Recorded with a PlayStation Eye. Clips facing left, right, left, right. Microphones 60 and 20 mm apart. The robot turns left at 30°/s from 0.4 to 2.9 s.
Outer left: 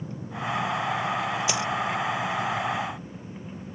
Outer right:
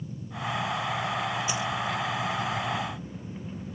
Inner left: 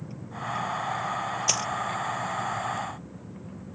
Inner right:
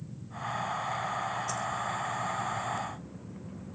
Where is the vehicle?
90° left; by 3.8 s 15° left (ahead or behind).